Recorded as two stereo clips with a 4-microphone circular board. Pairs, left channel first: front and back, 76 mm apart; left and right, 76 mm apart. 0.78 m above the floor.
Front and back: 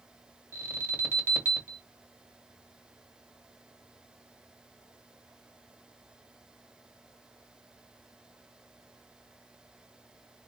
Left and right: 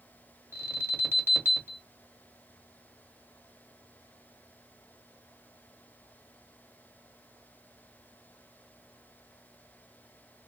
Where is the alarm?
130° right, 1.9 m.